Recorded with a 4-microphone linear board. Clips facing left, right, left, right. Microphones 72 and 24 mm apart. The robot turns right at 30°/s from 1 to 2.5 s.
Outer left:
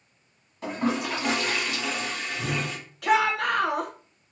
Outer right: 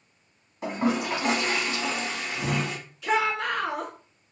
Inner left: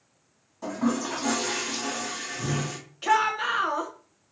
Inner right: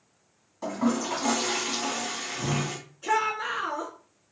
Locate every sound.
0.6 s a toilet flushing: 165° right, 1.6 m; by 2.8 s 120° right, 1.6 m
3.0 s a shout: 65° left (ahead or behind), 0.9 m